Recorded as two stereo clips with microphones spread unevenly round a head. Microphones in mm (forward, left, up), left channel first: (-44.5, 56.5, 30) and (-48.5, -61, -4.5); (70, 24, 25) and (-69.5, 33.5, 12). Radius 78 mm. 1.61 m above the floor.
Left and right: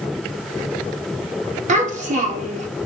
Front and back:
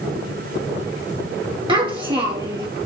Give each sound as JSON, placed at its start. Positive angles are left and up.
{"t": 1.7, "sound": "a child speaking", "azimuth_deg": -120, "distance_m": 2.0}